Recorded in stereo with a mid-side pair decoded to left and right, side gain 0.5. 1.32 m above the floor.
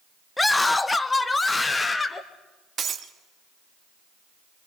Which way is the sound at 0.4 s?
15° left.